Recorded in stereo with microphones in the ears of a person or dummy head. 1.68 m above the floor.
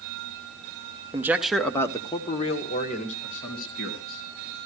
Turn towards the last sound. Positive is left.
turn(degrees=55)  # may be behind; listen again after turning